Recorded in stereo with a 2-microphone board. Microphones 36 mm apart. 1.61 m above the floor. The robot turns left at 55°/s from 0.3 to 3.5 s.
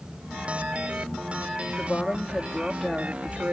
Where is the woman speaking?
50° left; by 3.5 s 45° right.